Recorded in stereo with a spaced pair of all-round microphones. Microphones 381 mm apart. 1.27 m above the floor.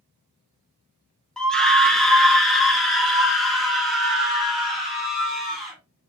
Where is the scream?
Centre (ahead or behind), 0.9 m.